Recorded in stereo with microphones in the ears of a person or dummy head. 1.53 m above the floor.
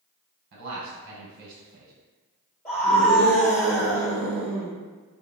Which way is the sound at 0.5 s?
50° right (ahead or behind).